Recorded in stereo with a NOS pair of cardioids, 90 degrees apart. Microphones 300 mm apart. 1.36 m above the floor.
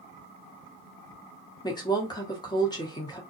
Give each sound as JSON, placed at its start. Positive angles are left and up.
{"t": 1.6, "sound": "a woman speaking", "azimuth_deg": 15, "distance_m": 1.3}